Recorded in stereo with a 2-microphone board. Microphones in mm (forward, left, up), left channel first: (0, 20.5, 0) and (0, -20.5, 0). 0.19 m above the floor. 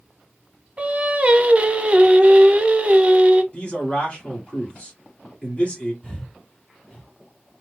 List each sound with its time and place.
0.8 s singing: 30° right (ahead or behind), 0.6 m
3.5 s a man speaking: 30° left (ahead or behind), 2.0 m
6.0 s breathing: 30° left (ahead or behind), 1.4 m